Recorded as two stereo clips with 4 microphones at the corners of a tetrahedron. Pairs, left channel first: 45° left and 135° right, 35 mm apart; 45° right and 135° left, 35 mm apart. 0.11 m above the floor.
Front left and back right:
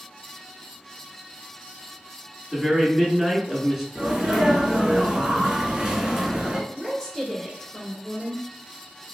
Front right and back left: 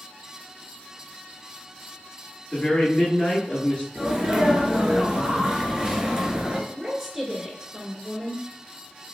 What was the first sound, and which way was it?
A man speaking, 50° right.